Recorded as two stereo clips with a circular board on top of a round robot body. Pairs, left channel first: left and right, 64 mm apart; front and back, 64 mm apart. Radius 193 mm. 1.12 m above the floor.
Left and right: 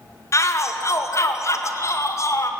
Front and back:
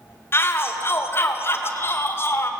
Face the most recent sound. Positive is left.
turn(degrees=50)